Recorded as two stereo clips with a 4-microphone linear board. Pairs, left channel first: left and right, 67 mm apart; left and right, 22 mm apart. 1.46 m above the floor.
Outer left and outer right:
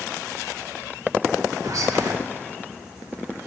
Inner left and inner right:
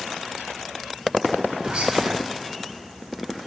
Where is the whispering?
55° right (ahead or behind), 1.0 m.